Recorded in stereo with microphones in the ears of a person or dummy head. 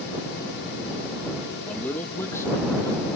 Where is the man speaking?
10° left (ahead or behind); by 3.1 s 20° left (ahead or behind).